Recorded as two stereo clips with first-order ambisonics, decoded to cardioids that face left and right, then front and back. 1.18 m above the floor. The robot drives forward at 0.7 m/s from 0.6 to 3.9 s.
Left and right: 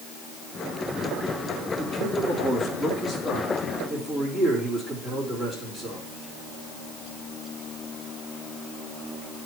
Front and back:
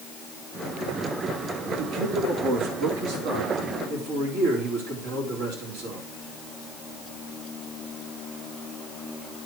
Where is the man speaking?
155° left, 2.5 m; by 6.1 s 165° left, 3.5 m.